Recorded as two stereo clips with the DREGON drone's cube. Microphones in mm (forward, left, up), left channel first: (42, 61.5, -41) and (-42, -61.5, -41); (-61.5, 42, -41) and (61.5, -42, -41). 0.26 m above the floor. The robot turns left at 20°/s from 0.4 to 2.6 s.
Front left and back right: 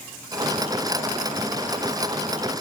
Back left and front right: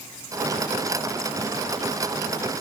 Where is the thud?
No thud in this recording.